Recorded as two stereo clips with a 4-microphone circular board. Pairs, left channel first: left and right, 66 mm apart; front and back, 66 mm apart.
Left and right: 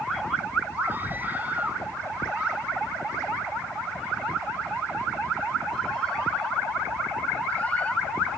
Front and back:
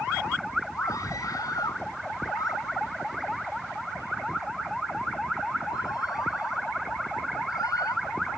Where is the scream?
30° right; by 8.3 s 25° left.